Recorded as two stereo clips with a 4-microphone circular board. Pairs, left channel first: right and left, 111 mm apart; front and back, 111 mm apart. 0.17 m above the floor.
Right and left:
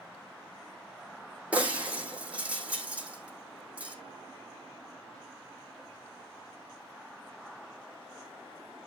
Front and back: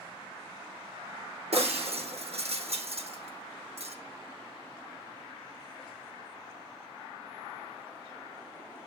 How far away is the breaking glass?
About 3.5 m.